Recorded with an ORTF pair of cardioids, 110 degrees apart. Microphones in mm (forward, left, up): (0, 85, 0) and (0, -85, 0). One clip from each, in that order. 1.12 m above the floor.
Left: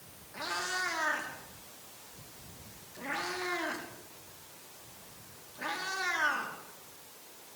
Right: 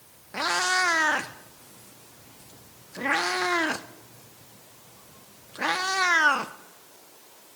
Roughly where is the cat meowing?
Ahead right.